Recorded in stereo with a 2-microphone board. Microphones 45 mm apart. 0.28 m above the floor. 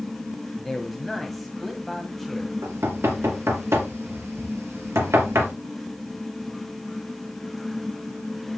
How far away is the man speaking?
About 1.8 m.